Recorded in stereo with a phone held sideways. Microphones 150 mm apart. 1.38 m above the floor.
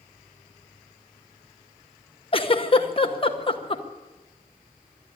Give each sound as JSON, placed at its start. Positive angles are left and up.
{"t": 2.3, "sound": "a giggle", "side_deg": 35, "distance_m": 1.0}